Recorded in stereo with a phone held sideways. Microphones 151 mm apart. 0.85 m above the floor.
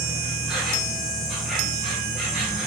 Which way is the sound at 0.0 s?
Centre (ahead or behind).